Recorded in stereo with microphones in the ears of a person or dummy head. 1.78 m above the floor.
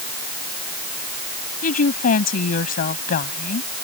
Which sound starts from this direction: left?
A woman speaking, at 1.6 s.